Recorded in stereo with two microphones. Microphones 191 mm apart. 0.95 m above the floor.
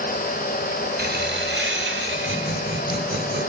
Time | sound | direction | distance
1.0 | laughter | 55° right (ahead or behind) | 2.0 m